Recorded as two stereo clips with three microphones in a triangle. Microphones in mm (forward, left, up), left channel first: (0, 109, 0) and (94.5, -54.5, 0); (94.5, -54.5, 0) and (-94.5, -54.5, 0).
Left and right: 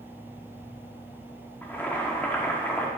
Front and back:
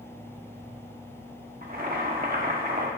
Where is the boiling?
165° right, 1.0 m.